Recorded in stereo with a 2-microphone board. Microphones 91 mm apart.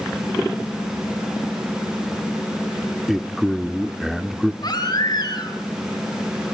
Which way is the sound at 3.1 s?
Centre (ahead or behind).